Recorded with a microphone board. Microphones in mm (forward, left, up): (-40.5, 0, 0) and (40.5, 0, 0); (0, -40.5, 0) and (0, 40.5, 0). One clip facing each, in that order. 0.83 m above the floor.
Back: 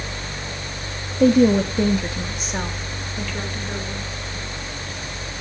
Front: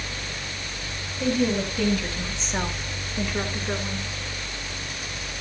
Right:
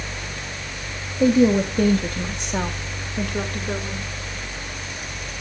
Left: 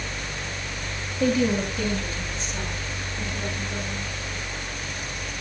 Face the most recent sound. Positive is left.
turn(degrees=-60)